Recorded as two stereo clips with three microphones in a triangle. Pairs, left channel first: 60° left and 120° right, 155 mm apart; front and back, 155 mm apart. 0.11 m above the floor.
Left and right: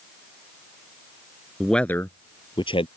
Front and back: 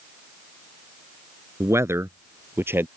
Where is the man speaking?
155° left; by 2.9 s 105° left.